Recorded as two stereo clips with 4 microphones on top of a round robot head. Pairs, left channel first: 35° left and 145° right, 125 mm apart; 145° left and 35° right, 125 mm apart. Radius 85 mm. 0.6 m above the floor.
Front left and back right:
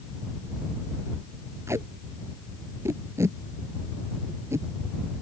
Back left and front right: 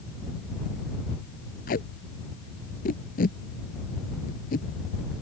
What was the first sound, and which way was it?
Tape being pulled, 145° left.